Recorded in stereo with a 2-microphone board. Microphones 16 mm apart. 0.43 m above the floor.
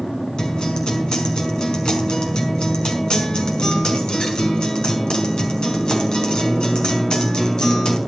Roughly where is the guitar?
Left.